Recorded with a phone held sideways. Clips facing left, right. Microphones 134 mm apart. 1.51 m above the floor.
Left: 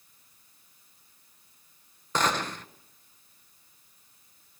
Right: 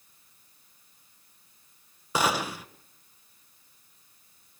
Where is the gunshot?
10° right (ahead or behind), 0.9 m.